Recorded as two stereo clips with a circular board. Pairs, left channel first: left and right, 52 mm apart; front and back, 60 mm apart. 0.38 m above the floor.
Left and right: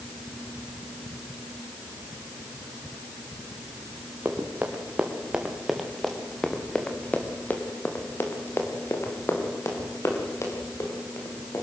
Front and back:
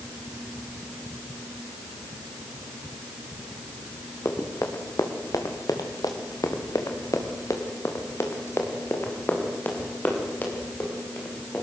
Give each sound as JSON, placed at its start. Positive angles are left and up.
{"t": 4.2, "sound": "running footsteps", "azimuth_deg": -35, "distance_m": 4.5}